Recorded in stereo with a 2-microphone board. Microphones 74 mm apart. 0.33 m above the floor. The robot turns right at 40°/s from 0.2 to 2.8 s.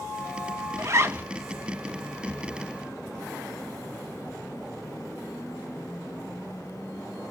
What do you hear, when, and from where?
0.8 s a zipper: 45° right (ahead or behind), 0.6 m; by 1.2 s 25° right (ahead or behind), 0.6 m